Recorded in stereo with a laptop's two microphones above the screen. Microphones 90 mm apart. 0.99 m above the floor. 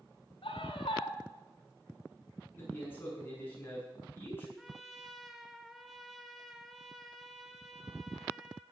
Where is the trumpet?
Centre (ahead or behind), 1.8 m.